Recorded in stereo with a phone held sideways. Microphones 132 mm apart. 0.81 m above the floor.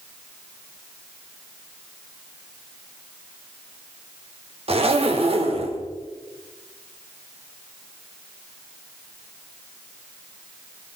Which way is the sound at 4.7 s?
50° right (ahead or behind).